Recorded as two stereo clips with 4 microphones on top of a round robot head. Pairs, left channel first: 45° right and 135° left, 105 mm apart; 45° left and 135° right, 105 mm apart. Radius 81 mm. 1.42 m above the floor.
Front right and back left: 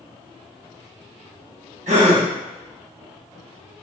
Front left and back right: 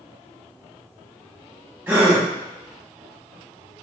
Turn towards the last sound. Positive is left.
turn(degrees=155)